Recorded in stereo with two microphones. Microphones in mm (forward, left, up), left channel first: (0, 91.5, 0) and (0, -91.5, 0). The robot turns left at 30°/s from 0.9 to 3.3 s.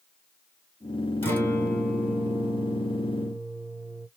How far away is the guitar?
About 2 m.